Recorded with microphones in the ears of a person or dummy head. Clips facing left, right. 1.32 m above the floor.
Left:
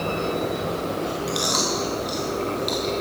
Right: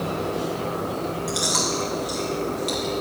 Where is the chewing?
Centre (ahead or behind), 0.8 m.